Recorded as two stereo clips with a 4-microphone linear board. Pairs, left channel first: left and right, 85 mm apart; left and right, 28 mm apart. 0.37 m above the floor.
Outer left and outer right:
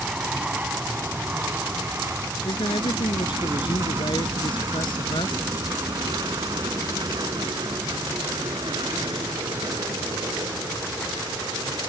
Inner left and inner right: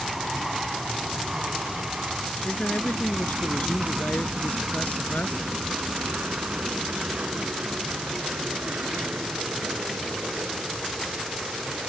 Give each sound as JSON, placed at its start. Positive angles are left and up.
{"t": 0.0, "sound": "an aircraft", "side_deg": -10}
{"t": 2.5, "sound": "a man speaking", "side_deg": 70}